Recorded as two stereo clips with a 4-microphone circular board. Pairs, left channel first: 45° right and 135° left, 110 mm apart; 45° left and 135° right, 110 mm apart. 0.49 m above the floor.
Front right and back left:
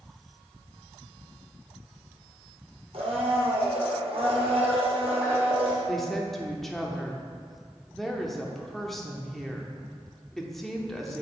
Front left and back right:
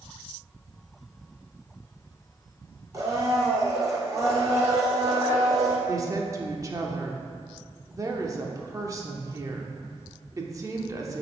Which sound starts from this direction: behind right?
A woman speaking, at 5.9 s.